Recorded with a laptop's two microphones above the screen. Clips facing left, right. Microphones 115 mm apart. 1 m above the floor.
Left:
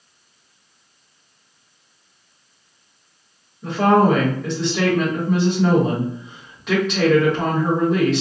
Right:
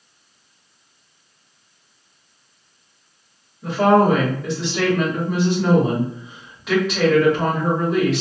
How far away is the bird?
No bird in this recording.